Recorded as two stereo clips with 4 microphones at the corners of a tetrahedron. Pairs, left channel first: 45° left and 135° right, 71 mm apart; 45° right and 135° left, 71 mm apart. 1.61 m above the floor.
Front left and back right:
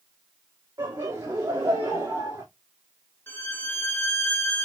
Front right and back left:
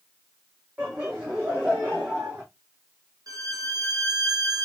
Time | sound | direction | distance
0.8 | laughter | 150° right | 1.7 m
3.3 | a violin | 105° left | 0.9 m